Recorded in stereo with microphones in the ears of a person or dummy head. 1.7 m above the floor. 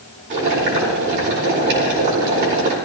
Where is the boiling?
60° right (ahead or behind), 4.5 m.